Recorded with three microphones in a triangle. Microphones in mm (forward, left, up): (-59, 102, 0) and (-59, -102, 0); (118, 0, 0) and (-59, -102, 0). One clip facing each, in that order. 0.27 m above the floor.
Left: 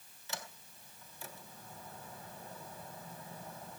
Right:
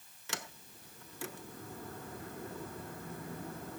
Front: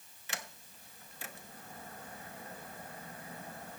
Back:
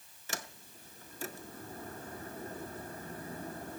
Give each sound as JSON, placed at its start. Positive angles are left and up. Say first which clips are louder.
{"t": 0.3, "sound": "a sliding door", "louder": "right 2 dB, back 3 dB", "azimuth_deg": -100, "distance_m": 0.7}